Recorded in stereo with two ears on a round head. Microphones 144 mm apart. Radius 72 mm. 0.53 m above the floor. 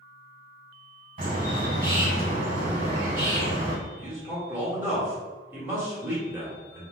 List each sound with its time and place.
1.2 s a bird: 55° right (ahead or behind), 1.9 m
4.0 s a man speaking: 15° right (ahead or behind), 1.3 m